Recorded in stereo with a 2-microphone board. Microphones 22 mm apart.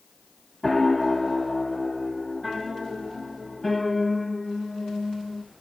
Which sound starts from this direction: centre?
A piano, at 0.6 s.